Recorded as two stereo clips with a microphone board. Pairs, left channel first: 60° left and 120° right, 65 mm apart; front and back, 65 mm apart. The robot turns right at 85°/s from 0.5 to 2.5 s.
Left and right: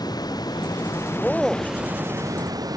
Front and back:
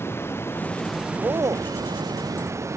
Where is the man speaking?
125° left; by 1.7 s 165° left.